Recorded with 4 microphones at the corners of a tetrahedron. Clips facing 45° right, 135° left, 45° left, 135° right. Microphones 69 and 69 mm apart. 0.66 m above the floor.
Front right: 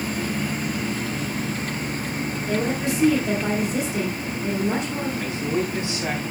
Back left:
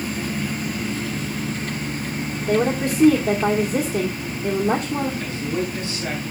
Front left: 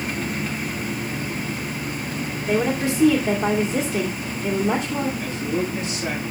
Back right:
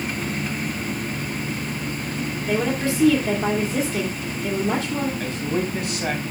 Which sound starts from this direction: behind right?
A man speaking, at 5.2 s.